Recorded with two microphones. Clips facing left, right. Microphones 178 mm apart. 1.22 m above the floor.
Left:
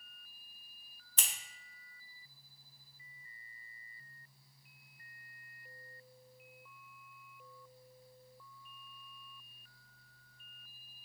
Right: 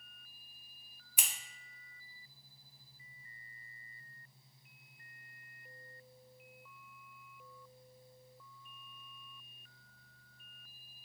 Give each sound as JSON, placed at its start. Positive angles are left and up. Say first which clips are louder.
{"t": 1.2, "sound": "scissors", "louder": "right 1 dB", "side_deg": -10, "distance_m": 0.6}